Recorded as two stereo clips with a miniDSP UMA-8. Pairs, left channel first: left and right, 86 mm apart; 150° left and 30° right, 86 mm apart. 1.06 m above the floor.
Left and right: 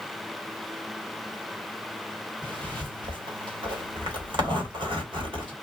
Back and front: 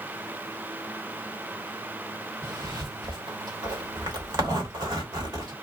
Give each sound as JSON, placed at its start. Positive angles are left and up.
{"t": 2.4, "sound": "a zipper", "azimuth_deg": -65, "distance_m": 1.2}